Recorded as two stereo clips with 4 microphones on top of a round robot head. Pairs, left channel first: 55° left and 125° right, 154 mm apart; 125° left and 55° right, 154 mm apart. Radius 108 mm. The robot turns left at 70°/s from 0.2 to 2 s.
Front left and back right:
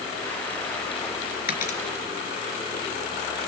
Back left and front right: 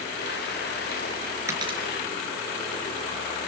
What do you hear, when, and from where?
1.5 s a dropped coin: 20° left, 3.5 m; by 1.8 s straight ahead, 3.5 m